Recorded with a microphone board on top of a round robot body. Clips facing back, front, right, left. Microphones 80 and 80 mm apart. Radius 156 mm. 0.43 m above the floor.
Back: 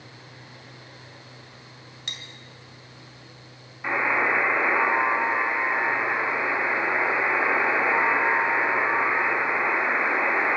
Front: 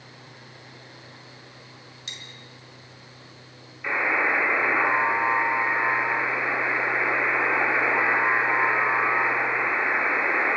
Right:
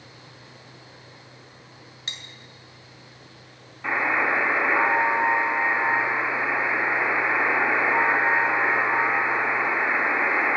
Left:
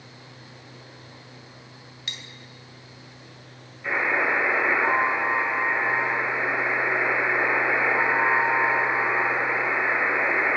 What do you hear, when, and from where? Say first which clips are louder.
2.1 s cutlery clinking: back 3 dB, even; 145° right, 1.9 m
3.8 s a buzzer: back 1 dB, right 1 dB; 120° right, 5 m